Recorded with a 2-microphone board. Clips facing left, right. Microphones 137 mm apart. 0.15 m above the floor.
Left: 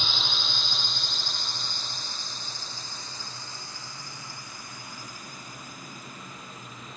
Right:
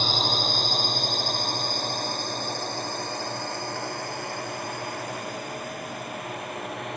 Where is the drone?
45° right (ahead or behind); by 7.0 s 80° right.